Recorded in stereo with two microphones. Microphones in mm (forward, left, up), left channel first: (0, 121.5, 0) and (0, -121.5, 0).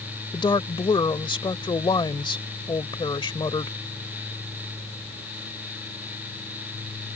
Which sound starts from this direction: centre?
A woman speaking, at 0.3 s.